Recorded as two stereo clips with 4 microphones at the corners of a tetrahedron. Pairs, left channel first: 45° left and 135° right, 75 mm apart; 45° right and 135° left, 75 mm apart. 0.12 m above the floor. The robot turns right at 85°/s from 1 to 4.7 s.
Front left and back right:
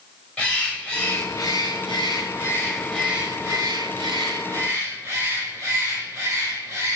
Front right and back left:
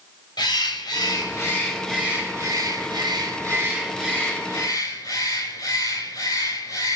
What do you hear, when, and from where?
0.4 s a bird: 25° right, 4 m; by 7.0 s 70° right, 4 m